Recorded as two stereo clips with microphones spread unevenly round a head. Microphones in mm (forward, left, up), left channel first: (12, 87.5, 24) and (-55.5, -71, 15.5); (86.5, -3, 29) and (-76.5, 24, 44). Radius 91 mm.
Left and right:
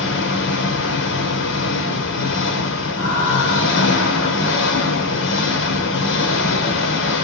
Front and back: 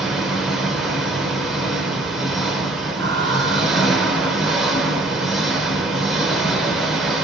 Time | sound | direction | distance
0.0 | an engine running | 80° left | 3 m
3.0 | laughter | 140° left | 5 m